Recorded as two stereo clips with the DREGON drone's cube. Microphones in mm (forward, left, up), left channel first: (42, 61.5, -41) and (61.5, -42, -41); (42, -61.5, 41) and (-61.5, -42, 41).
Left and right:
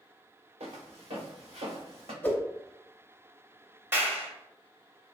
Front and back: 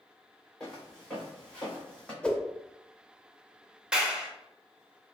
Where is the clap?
115° right, 0.7 m.